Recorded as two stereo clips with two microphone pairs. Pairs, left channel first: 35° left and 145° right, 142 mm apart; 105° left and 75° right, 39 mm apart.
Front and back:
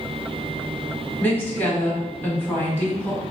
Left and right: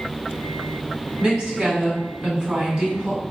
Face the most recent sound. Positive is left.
turn(degrees=-35)